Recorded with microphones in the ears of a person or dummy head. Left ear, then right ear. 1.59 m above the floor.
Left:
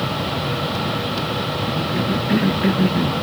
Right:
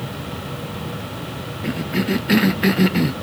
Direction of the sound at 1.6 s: 40° right (ahead or behind).